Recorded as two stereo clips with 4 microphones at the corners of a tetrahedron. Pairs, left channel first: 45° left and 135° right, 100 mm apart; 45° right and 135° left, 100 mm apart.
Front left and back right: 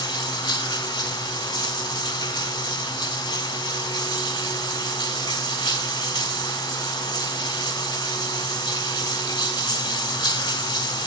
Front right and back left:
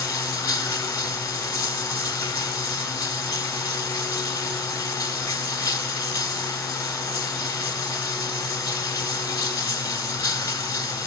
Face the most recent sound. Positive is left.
turn(degrees=-5)